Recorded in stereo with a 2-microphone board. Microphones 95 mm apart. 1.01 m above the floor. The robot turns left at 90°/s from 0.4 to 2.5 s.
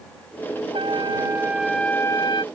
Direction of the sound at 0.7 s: 95° right.